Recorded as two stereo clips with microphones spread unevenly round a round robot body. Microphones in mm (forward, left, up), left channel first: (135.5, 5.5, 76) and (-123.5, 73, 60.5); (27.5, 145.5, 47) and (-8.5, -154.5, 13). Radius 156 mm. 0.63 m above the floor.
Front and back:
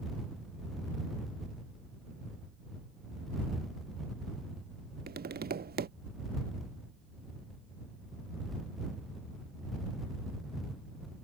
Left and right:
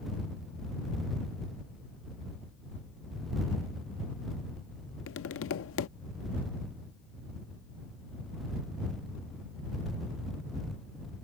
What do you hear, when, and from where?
5.1 s tapping: 125° left